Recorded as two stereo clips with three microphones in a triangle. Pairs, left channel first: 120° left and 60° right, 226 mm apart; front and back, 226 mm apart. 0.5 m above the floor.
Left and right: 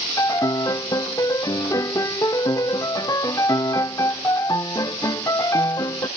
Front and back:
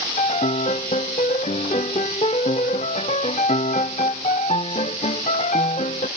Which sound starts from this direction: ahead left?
A piano, at 0.2 s.